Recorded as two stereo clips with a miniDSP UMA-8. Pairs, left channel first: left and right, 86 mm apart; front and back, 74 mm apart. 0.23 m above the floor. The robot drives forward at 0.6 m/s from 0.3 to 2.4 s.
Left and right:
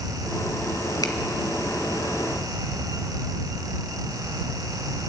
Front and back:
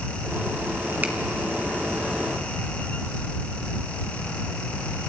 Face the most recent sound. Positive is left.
turn(degrees=135)